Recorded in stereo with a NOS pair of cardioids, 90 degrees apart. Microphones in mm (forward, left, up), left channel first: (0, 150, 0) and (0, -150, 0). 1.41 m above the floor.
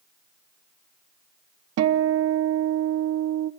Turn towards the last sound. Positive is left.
turn(degrees=-65)